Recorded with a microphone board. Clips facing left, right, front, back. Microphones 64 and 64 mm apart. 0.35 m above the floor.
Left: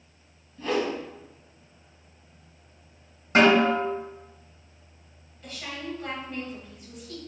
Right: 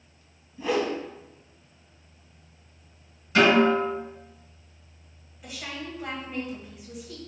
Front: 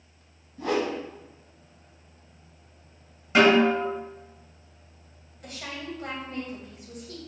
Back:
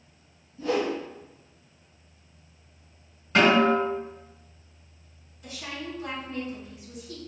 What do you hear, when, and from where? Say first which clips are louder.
0.6 s a whoosh: right 1 dB, even; 10° right, 1.0 m
3.4 s a snare drum: even, front 1 dB; 75° left, 2.0 m
5.4 s a woman speaking: left 1 dB, even; 15° right, 1.4 m